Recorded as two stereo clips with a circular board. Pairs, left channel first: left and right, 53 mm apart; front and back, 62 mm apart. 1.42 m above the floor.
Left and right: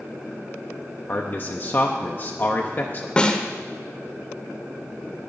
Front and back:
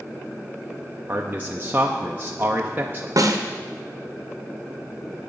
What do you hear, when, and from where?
1.1 s a man speaking: 125° left, 0.7 m
3.2 s a snare drum: 160° left, 0.9 m